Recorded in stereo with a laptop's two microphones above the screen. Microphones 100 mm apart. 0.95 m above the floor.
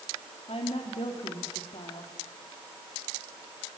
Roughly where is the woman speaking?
Left.